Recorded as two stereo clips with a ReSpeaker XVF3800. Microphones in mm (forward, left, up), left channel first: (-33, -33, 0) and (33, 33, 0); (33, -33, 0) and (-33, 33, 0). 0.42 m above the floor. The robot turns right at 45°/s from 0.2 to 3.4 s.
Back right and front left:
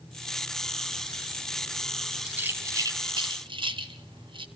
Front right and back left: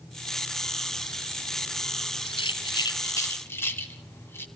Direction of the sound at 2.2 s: 30° right.